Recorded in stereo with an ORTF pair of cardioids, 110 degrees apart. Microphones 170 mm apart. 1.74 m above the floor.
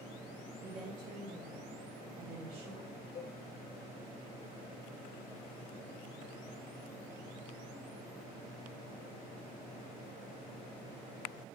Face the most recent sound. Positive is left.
turn(degrees=35)